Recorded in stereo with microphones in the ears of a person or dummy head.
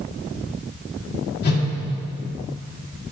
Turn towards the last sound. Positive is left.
turn(degrees=55)  # may be behind; listen again after turning